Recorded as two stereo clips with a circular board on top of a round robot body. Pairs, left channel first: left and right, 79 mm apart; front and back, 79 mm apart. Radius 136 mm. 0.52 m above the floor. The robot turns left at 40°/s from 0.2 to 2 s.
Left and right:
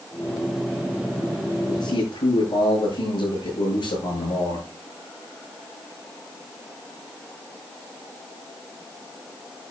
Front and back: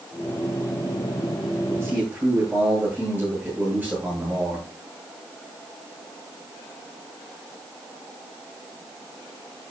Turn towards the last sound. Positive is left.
turn(degrees=110)